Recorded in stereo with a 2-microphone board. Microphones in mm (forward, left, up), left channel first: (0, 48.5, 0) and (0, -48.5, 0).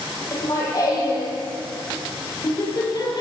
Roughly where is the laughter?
Left.